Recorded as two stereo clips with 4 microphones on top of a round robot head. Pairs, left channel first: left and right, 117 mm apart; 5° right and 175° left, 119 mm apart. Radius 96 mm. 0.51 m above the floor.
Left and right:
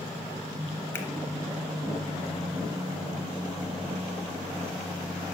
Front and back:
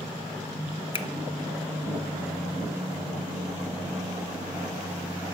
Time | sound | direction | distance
0.9 | a finger snap | 25° left | 0.7 m